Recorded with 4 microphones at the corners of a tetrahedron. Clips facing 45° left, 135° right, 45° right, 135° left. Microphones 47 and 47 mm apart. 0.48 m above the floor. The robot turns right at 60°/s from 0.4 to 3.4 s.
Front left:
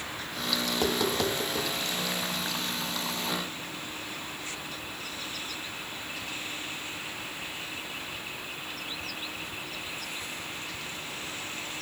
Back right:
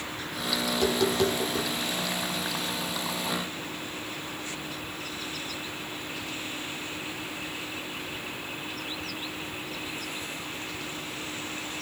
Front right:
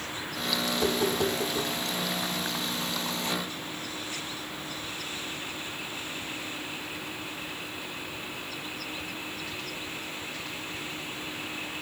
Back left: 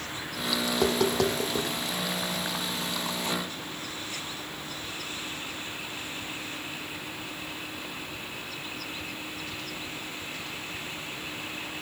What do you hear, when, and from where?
0.7 s tapping: 100° left, 5 m; by 1.7 s 165° left, 5 m